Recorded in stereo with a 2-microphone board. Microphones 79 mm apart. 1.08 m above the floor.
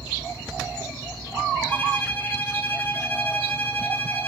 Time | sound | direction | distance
1.7 | a violin | 25° left (ahead or behind) | 1.4 m